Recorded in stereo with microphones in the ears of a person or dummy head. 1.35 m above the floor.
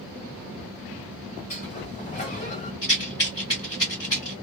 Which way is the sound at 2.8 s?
20° left (ahead or behind).